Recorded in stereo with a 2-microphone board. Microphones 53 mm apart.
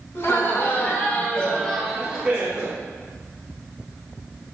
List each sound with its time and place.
0.1 s laughter: 55° left (ahead or behind), 2 m; by 2.8 s 40° right (ahead or behind), 1.5 m